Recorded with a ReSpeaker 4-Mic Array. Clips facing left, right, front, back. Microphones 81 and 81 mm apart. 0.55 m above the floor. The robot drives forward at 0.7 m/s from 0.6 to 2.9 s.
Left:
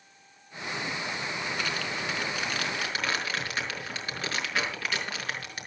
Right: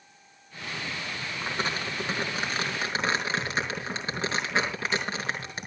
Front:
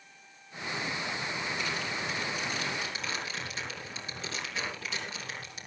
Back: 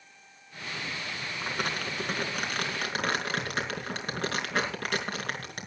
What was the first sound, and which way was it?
Crumpling, 145° right.